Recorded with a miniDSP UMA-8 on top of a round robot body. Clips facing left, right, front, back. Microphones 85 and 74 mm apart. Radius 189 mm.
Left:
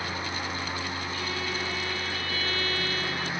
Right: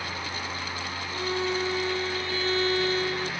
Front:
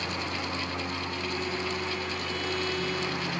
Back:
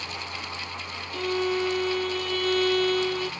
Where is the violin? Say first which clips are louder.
Right 9 dB, back 11 dB; 155° right.